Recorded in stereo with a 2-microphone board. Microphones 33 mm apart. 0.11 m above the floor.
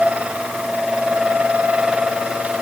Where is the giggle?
No giggle in this recording.